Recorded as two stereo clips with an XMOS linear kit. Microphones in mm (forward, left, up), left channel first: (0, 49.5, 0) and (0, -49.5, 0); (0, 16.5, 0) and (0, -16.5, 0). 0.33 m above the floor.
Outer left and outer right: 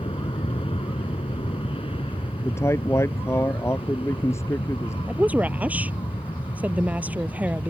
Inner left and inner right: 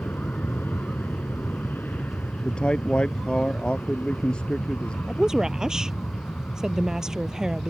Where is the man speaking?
30° left (ahead or behind).